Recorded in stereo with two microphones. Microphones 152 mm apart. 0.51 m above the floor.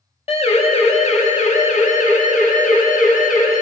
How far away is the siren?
About 2.5 m.